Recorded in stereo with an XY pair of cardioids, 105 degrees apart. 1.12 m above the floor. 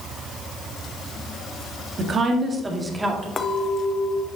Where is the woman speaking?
45° right, 1.7 m; by 3.3 s 10° right, 2 m.